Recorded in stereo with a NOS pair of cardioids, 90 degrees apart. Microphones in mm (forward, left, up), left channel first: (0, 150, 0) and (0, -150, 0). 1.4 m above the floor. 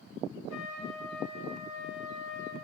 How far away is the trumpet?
About 2.5 m.